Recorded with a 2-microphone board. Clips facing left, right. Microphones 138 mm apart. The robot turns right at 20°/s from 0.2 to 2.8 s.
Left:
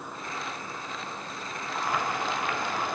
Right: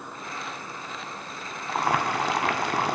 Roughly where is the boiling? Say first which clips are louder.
Right 5 dB; right.